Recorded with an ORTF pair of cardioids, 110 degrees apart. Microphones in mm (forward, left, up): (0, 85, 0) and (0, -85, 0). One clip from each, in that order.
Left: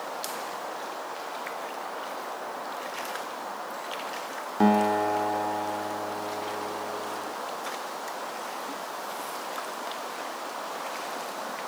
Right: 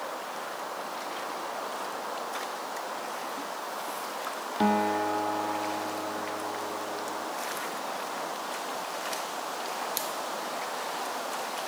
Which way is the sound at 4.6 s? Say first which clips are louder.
Left 3 dB; 25° left.